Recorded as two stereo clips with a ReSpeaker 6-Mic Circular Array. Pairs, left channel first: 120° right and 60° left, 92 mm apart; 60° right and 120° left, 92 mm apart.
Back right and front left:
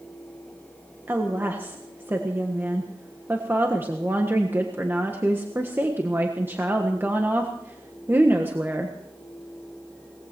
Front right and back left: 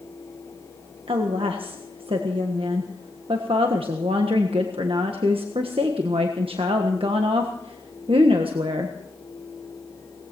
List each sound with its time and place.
1.1 s a woman speaking: 125° left, 1.4 m